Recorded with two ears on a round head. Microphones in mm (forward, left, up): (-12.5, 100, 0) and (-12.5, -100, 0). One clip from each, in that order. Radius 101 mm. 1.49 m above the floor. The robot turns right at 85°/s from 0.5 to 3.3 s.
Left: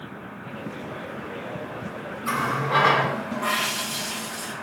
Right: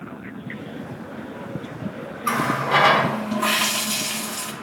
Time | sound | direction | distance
2.2 | a running tap | 145° right | 1.4 m